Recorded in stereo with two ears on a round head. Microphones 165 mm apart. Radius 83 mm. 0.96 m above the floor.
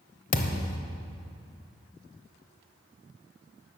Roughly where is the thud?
Left.